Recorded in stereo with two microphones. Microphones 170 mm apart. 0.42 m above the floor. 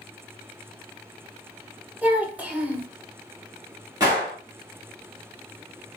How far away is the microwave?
I don't hear a microwave.